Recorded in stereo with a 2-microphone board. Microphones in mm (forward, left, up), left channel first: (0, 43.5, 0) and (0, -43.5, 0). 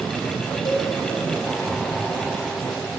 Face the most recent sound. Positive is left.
turn(degrees=55)  # may be behind; listen again after turning